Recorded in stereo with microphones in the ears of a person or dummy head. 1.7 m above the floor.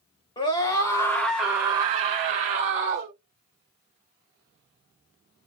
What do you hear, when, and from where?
0.4 s a scream: 25° left (ahead or behind), 0.8 m; by 3.1 s 50° right (ahead or behind), 0.8 m